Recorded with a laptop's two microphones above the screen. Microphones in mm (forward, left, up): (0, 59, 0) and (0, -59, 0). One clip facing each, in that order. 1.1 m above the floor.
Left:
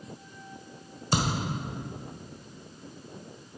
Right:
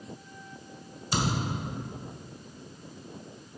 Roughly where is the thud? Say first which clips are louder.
Left 1 dB; left.